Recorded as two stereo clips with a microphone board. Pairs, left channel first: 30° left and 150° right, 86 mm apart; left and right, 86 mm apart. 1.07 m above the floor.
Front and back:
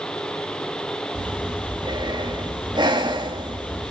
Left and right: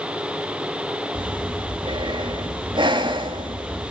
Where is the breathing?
115° right, 1.8 m.